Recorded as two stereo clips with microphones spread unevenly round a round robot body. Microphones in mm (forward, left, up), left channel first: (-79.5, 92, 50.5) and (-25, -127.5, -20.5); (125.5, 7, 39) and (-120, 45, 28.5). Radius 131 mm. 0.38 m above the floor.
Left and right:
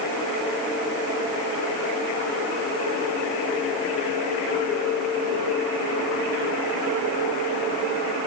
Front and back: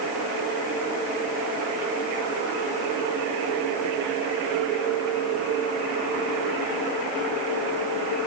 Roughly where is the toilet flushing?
No toilet flushing in this recording.